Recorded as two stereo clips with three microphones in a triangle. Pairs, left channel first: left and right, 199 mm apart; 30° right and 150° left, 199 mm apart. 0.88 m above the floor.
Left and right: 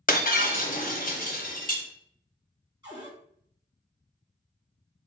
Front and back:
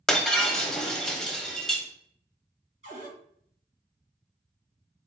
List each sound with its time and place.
0.1 s breaking glass: 55° left, 0.6 m
2.8 s a cupboard door: 160° right, 1.8 m